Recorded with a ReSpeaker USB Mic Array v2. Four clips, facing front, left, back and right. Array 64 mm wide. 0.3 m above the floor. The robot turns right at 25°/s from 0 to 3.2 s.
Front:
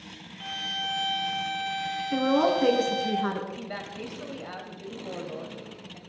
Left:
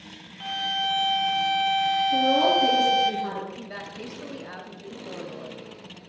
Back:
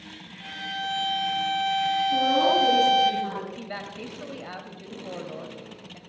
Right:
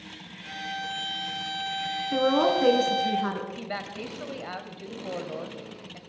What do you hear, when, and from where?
0.4 s a violin: 75° left, 2.5 m; by 3.1 s 140° left, 2.5 m
2.1 s a woman speaking: 60° right, 3.5 m; by 3.5 s 35° right, 3.5 m
3.6 s a woman speaking: 105° right, 1.7 m